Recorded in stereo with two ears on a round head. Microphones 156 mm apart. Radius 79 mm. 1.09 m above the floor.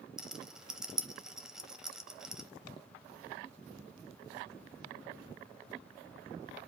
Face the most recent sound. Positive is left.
turn(degrees=-5)  # may be behind; listen again after turning